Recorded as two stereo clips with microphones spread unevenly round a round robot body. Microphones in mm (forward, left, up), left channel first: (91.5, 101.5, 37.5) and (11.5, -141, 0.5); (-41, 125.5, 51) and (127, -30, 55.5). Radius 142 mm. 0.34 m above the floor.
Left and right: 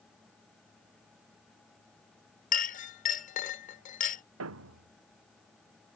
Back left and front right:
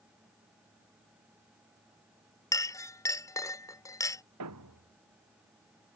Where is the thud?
75° right.